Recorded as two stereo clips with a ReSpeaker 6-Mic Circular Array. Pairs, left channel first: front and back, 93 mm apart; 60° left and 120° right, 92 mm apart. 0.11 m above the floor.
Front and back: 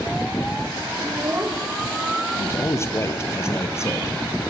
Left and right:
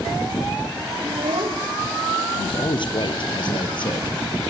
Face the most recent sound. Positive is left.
turn(degrees=55)